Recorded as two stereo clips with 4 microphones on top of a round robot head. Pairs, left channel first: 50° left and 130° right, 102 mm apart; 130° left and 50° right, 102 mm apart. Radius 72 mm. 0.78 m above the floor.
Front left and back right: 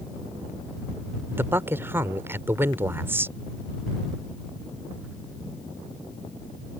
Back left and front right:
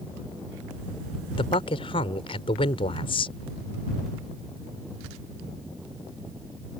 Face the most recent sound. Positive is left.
turn(degrees=165)